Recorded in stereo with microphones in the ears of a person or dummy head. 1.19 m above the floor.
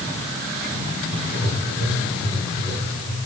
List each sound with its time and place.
1.1 s writing: 75° left (ahead or behind), 8 m